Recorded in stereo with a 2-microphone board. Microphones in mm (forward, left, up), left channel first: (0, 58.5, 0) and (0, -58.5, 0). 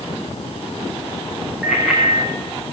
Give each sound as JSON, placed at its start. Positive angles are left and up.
{"t": 1.6, "sound": "a bicycle bell", "side_deg": -5, "distance_m": 5.0}